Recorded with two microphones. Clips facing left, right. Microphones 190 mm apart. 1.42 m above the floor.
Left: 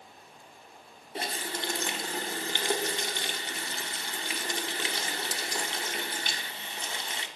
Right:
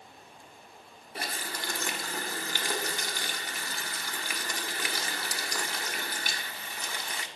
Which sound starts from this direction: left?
A running tap, at 1.1 s.